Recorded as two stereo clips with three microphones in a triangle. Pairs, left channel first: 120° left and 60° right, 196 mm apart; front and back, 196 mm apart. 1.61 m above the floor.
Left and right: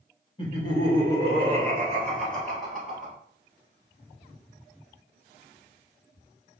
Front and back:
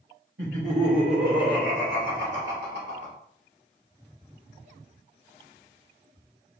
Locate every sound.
0.4 s laughter: straight behind, 2 m; by 3.1 s 145° right, 3 m